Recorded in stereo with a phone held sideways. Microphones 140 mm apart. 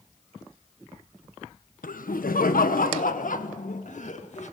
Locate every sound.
1.8 s laughter: 75° left (ahead or behind), 1.1 m; by 4.5 s 55° left (ahead or behind), 2 m